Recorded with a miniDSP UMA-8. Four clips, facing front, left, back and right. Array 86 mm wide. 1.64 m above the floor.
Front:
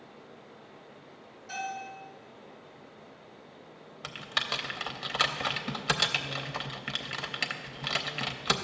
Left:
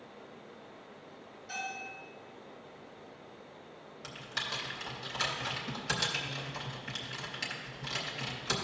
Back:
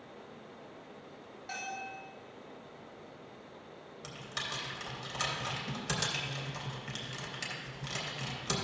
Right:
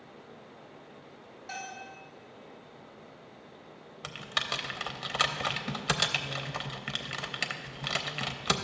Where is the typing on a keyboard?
45° right, 0.7 m.